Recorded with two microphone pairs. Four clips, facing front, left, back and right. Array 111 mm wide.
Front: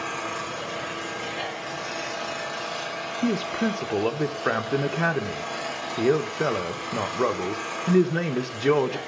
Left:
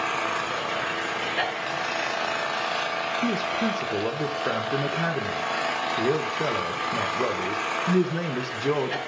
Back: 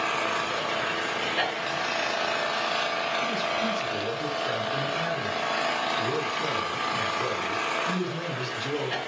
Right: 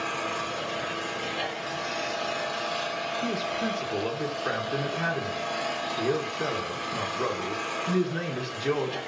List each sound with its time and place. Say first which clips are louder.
0.0 s an engine running: left 4 dB, back 3 dB; 120° left, 1.3 m
3.2 s a man speaking: left 4 dB, front 3 dB; 15° left, 1.3 m